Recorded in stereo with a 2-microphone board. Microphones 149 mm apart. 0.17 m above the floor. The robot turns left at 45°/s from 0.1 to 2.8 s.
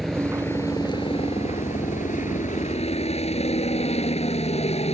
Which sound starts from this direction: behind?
A helicopter, at 0.0 s.